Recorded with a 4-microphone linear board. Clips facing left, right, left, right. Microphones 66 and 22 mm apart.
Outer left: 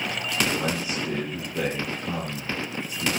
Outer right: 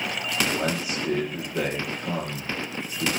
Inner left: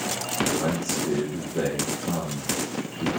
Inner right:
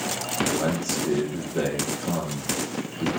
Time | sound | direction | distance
0.5 | a man speaking | 10° right (ahead or behind) | 7.5 m